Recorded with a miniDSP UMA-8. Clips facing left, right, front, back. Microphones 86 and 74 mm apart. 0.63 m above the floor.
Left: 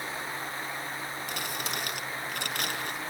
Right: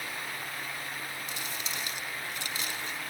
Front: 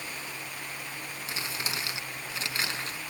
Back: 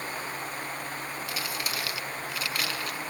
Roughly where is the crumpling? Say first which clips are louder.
Left 4 dB, front 1 dB; ahead left.